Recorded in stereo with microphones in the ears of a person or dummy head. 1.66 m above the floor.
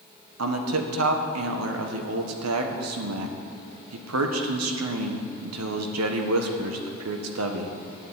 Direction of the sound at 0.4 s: 85° right.